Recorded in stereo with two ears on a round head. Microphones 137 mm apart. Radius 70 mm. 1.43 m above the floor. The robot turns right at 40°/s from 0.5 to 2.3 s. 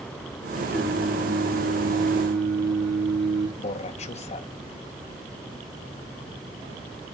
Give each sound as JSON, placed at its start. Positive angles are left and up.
{"t": 0.7, "sound": "singing", "azimuth_deg": -165, "distance_m": 2.5}
{"t": 3.6, "sound": "a man speaking", "side_deg": 45, "distance_m": 1.1}